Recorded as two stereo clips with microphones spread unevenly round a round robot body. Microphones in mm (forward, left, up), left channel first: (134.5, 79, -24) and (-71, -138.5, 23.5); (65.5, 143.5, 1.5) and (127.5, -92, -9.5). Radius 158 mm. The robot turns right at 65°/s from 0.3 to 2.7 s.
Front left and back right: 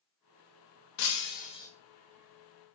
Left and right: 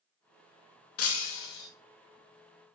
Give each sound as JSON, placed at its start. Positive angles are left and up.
{"t": 1.0, "sound": "breaking glass", "azimuth_deg": 80, "distance_m": 1.5}